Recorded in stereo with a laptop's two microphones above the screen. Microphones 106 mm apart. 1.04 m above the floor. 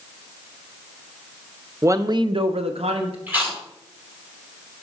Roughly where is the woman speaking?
Right.